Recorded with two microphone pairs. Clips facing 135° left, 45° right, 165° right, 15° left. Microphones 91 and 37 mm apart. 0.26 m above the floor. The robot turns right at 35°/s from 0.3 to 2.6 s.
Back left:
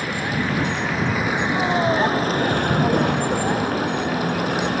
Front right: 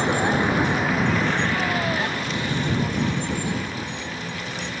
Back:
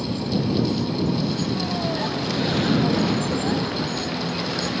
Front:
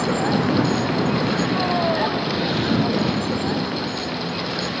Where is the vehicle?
20° left; by 4.8 s 100° left.